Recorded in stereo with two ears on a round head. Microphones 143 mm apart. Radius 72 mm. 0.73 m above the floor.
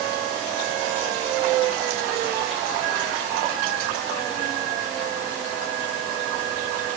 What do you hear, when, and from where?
Only background noise.